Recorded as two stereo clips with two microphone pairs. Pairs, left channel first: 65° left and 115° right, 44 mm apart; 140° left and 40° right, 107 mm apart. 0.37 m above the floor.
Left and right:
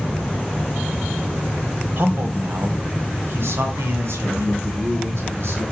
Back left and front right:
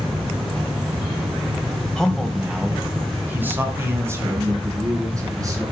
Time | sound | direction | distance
2.0 | a man speaking | 135° right | 1.8 m